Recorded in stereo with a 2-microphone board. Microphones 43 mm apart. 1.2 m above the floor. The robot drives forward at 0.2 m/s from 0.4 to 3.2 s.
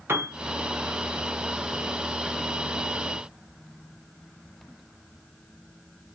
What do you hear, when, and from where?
0.1 s a piano: 60° right (ahead or behind), 0.9 m